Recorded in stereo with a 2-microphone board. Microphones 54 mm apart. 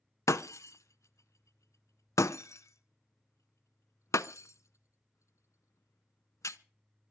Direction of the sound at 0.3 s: 75° left (ahead or behind).